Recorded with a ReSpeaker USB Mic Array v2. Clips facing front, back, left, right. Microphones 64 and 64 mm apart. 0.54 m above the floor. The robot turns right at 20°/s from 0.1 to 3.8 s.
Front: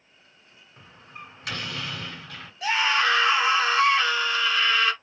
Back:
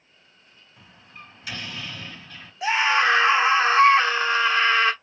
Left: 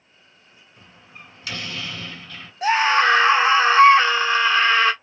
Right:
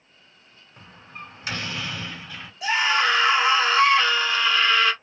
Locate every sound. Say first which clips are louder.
0.8 s a door slam: front 3 dB, right 5 dB; 45° right, 3 m; by 2.5 s 10° right, 3 m
2.6 s a scream: back 3 dB, left 4 dB; 115° left, 1.4 m; by 4.9 s 140° left, 1.4 m